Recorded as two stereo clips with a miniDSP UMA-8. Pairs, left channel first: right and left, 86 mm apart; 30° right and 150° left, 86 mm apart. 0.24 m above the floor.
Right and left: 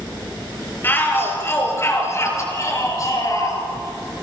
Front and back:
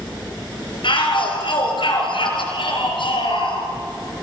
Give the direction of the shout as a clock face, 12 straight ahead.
1 o'clock.